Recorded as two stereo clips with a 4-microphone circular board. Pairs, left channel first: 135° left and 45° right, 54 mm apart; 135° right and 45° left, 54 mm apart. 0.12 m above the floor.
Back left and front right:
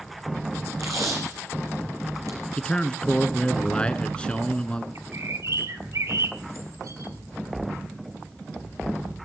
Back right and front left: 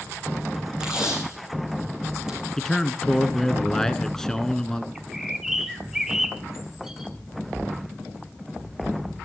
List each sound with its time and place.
0.8 s tape being pulled: 30° right, 3.5 m
2.6 s a man speaking: 165° left, 1.3 m
5.0 s a bird: 35° right, 1.4 m